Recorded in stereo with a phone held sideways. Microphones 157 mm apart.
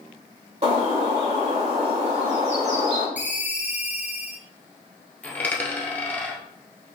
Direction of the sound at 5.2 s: 10° left (ahead or behind).